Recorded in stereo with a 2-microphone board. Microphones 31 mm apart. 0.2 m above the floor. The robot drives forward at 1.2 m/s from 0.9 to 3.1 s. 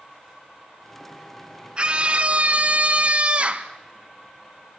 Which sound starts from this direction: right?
A scream, at 1.8 s.